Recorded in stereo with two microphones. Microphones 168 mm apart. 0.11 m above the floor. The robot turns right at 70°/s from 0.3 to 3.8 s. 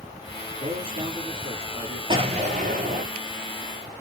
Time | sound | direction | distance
0.6 | a man speaking | 105° right | 2 m
2.1 | an explosion | 145° right | 1.1 m